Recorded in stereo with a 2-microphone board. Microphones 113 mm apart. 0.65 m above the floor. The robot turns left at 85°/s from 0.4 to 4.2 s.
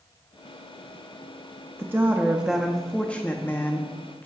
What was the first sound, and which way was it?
A woman speaking, 20° right (ahead or behind).